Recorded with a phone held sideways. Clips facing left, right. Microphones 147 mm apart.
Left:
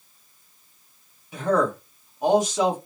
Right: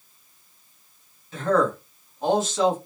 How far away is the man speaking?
About 1.1 m.